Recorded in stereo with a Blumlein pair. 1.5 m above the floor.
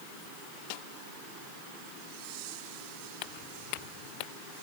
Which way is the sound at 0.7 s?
45° left.